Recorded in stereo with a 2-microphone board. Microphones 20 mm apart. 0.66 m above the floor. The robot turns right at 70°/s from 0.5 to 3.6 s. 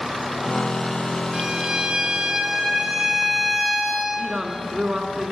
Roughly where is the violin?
Behind right.